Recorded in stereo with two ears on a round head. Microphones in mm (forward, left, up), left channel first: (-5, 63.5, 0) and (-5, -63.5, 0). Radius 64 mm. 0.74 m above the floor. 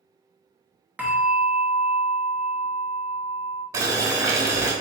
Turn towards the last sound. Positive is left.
turn(degrees=-25)  # may be behind; listen again after turning